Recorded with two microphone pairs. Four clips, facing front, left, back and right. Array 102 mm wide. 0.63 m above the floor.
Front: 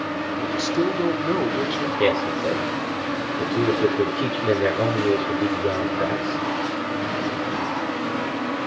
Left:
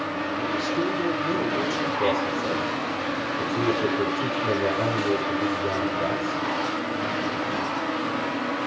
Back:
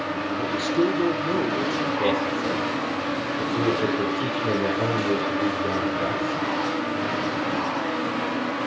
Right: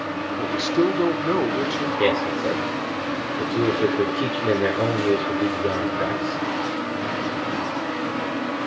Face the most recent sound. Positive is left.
turn(degrees=-65)